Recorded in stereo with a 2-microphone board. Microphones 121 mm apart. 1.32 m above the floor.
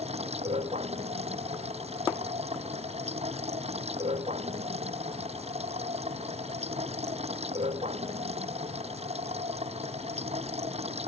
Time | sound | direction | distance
0.0 | running water | 60° right (ahead or behind) | ?